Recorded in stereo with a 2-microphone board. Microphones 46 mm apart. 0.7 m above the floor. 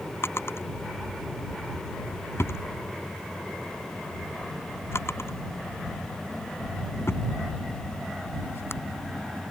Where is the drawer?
70° left (ahead or behind).